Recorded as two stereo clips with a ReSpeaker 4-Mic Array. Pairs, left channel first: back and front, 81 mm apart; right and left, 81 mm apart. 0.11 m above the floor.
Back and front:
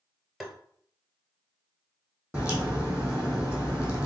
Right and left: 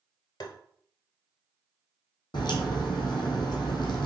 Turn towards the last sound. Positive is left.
turn(degrees=-75)